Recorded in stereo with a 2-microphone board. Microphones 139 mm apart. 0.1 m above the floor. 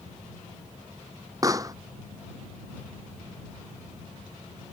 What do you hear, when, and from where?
1.4 s a pop: 25° right (ahead or behind)